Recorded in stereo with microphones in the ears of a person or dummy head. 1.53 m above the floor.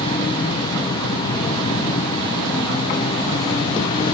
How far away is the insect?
About 1.2 m.